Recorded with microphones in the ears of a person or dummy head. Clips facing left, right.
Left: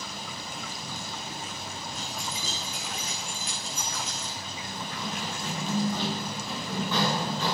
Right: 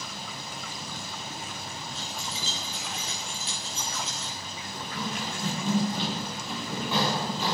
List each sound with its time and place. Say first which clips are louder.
1.9 s keys jangling: left 1 dB; 30° right (ahead or behind), 3.5 m
4.7 s running footsteps: right 2 dB; 25° right (ahead or behind), 10 m; by 7.6 s 15° right (ahead or behind), 8.5 m